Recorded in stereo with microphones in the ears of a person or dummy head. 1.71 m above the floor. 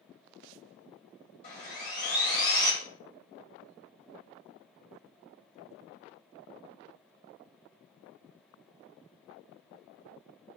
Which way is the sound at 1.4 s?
45° left (ahead or behind).